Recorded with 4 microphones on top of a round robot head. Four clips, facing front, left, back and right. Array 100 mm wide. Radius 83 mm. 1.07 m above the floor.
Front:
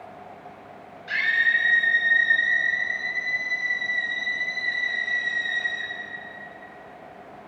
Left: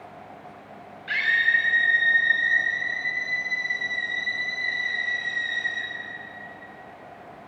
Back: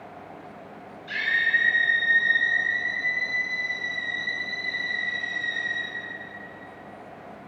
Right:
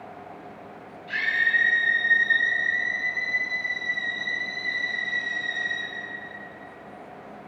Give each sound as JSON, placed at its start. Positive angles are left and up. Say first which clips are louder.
{"t": 1.1, "sound": "a scream", "louder": "left 2 dB, front 2 dB", "azimuth_deg": 65, "distance_m": 7.0}